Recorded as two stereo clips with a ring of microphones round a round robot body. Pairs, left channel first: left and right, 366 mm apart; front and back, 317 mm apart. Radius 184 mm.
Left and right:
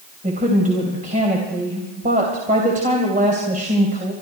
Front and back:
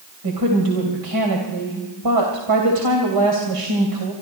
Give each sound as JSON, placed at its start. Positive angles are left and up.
{"t": 0.2, "sound": "a woman speaking", "azimuth_deg": -160, "distance_m": 3.0}